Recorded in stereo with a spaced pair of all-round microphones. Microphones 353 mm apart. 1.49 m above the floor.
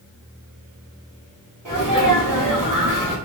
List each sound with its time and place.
1.6 s a sneeze: 60° right (ahead or behind), 1.5 m